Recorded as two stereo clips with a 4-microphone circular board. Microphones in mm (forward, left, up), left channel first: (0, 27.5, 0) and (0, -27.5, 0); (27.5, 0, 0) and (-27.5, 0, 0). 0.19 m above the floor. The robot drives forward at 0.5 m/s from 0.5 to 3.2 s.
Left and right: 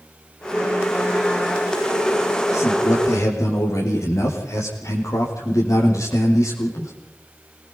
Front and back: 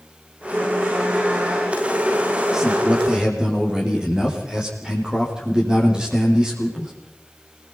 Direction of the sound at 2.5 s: 100° left.